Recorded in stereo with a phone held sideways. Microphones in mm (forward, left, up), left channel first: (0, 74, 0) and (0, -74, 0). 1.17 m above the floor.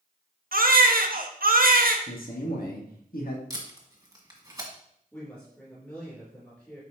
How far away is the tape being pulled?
About 1.5 m.